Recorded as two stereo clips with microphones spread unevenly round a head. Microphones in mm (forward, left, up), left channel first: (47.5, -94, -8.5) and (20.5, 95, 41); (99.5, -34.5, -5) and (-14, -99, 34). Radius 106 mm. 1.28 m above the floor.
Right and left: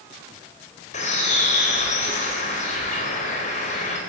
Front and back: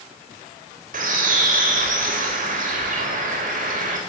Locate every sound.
0.9 s a bird: 140° right, 4 m